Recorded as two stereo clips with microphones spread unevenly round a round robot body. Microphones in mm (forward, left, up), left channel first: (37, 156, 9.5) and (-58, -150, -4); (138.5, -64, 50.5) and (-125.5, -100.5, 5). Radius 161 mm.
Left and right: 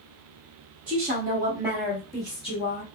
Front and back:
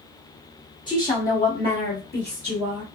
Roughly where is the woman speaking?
Ahead right.